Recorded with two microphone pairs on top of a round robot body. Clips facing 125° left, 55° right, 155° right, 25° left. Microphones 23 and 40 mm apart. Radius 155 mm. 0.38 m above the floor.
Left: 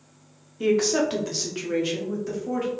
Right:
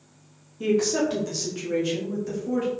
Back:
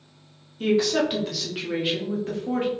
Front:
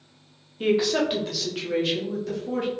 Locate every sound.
0.6 s a woman speaking: 85° left, 1.3 m; by 2.7 s 170° right, 1.2 m